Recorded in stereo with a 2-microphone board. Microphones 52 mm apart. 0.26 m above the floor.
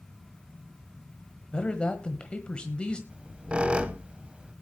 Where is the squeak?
25° right (ahead or behind), 1.2 m.